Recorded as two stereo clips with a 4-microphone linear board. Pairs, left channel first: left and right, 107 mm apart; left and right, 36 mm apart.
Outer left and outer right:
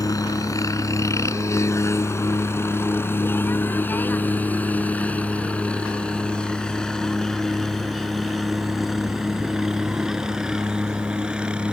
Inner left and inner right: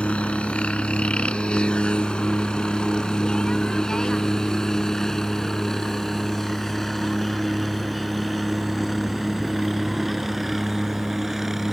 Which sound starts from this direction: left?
A helicopter, at 0.0 s.